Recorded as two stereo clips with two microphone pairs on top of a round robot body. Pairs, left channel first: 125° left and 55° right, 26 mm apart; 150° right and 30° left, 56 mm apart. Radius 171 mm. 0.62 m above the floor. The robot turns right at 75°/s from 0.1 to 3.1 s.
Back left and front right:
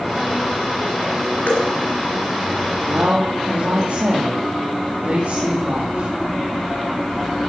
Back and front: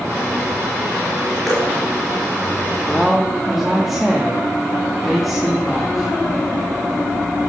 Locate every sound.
1.5 s dripping: 120° left, 3 m; by 1.7 s 140° left, 3 m
2.9 s a woman speaking: 85° right, 2.0 m; by 6.1 s 65° right, 2.0 m